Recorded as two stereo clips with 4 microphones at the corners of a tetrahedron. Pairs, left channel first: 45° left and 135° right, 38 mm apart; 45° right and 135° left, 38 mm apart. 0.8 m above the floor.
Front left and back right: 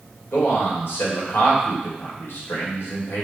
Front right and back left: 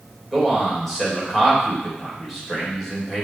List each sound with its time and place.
0.3 s a man speaking: 40° left, 3 m